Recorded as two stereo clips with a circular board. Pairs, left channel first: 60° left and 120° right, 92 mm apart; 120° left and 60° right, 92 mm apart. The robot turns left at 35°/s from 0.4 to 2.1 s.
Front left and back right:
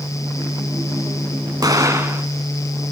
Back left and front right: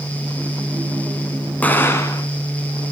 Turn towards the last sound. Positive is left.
turn(degrees=175)